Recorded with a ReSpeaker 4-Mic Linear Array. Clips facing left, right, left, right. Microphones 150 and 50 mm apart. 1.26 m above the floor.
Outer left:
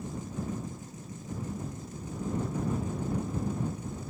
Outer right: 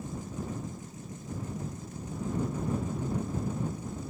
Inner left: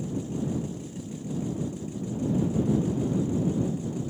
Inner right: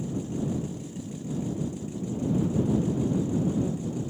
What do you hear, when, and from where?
Only background noise.